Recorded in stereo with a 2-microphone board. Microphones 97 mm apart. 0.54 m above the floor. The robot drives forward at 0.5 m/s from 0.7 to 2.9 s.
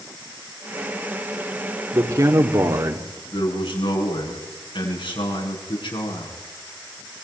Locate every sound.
1.9 s a man speaking: 40° right (ahead or behind), 1.8 m
3.3 s a man speaking: 70° left (ahead or behind), 6.5 m